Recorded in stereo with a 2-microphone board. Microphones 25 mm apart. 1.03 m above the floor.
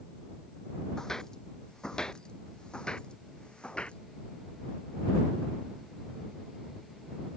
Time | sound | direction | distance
1.0 | footsteps | 25° left (ahead or behind) | ?